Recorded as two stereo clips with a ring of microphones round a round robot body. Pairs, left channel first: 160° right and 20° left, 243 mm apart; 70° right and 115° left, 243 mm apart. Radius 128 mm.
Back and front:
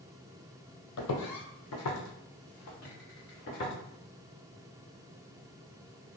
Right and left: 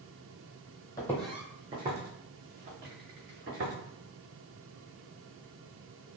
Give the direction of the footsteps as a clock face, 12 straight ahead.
5 o'clock.